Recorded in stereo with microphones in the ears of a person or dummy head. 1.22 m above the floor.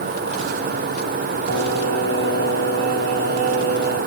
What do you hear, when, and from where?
1.5 s singing: 50° right (ahead or behind), 3 m